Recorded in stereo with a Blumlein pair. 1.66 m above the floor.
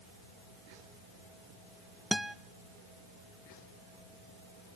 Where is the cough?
No cough in this recording.